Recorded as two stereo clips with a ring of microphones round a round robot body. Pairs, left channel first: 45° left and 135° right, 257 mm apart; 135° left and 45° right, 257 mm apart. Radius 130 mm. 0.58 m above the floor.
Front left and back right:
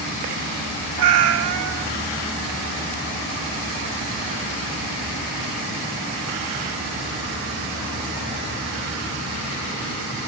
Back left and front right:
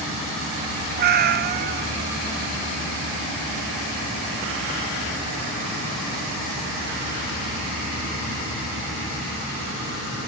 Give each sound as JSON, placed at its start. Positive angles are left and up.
{"t": 1.0, "sound": "a cat meowing", "azimuth_deg": -100, "distance_m": 1.2}